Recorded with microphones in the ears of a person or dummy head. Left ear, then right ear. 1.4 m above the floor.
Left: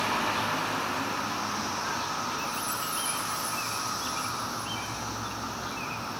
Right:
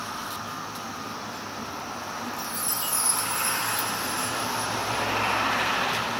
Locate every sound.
2.4 s a chime: 35° right (ahead or behind)